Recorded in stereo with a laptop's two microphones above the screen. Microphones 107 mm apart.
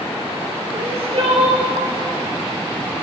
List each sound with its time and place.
0.7 s crying: 60° right (ahead or behind), 3.5 m